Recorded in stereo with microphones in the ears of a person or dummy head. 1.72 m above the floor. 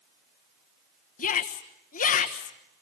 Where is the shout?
45° left (ahead or behind), 1.3 m.